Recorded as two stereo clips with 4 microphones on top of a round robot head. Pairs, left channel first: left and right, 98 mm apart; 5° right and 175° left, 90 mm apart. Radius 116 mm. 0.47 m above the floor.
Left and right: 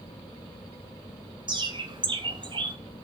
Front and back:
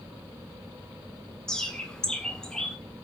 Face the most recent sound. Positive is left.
turn(degrees=-85)